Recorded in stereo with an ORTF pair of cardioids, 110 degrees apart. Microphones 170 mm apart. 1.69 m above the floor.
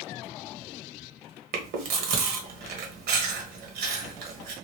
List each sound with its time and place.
1.5 s chewing: 70° right, 1.1 m